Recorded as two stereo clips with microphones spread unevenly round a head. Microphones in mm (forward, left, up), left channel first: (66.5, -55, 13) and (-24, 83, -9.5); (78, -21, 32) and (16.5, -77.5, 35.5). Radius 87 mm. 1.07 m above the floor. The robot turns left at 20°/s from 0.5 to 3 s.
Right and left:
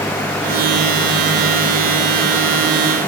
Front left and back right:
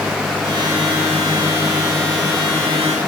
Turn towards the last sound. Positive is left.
No sound to turn to.